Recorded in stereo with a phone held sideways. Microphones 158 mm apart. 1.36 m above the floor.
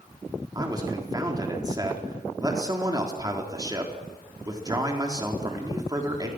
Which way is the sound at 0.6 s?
25° right (ahead or behind).